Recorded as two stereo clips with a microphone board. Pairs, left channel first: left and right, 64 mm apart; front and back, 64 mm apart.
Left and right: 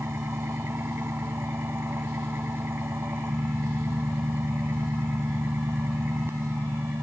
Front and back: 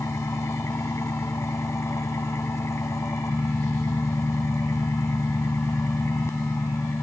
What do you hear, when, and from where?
0.0 s an engine running: 40° right